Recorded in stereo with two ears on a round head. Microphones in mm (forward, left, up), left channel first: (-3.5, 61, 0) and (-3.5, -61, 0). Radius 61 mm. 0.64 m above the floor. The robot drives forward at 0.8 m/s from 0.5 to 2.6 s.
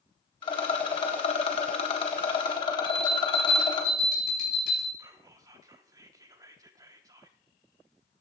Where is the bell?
75° left (ahead or behind), 4.5 m.